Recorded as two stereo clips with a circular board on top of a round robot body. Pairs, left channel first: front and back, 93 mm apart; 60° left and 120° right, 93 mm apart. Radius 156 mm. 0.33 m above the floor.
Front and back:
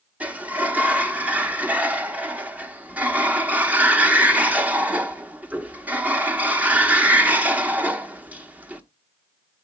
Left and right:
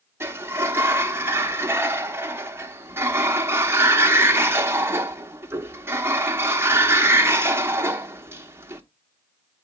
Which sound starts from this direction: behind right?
A sliding door, at 0.2 s.